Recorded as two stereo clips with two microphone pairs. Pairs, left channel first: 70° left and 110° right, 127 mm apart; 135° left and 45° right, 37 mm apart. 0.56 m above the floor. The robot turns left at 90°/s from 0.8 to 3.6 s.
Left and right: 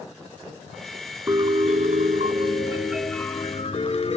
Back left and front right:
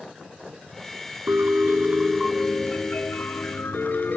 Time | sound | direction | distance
1.3 | a piano | 45° right | 1.4 m